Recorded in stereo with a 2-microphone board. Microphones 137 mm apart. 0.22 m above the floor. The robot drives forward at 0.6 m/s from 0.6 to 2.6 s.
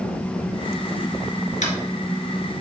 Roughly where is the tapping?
Left.